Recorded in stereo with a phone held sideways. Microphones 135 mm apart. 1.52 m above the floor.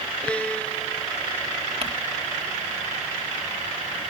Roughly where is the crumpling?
Right.